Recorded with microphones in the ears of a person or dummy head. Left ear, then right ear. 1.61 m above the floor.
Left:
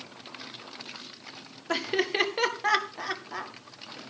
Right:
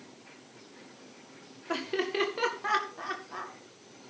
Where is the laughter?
25° left (ahead or behind), 1.8 m.